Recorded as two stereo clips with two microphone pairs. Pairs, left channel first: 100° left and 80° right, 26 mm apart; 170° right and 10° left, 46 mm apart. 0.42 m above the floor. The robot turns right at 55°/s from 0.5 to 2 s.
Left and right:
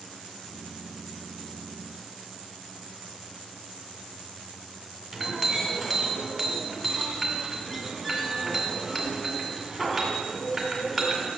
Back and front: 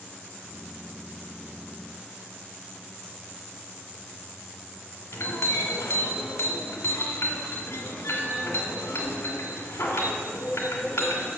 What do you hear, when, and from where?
5.1 s a clink: 170° right, 2 m